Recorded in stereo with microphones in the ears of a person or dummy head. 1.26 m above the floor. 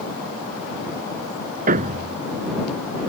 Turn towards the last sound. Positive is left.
turn(degrees=-40)  # may be behind; listen again after turning